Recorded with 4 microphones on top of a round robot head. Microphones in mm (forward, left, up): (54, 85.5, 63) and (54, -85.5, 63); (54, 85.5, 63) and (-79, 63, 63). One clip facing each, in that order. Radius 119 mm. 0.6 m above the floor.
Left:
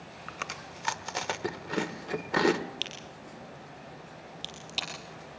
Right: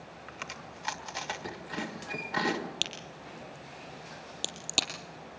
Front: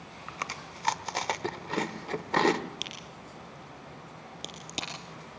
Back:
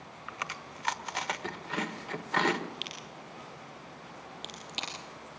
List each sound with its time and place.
0.3 s chewing: 60° left, 1.6 m
2.8 s a crack: 50° right, 3.5 m